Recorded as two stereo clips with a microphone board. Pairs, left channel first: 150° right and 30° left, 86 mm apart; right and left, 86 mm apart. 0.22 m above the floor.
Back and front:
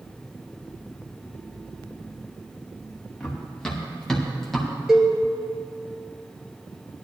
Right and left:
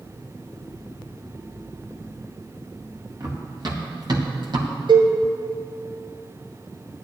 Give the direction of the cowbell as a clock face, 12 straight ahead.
8 o'clock.